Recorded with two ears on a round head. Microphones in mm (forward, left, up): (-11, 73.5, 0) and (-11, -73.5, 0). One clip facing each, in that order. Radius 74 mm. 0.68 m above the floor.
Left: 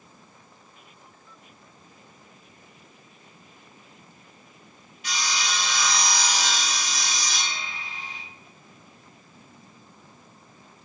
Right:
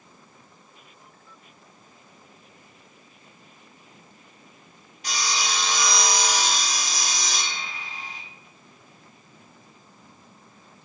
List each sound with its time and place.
5.0 s sawing: 35° right (ahead or behind), 1.2 m